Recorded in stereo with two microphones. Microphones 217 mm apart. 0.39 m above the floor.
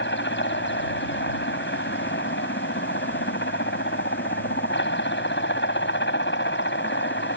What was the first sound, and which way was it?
A helicopter, 60° left (ahead or behind).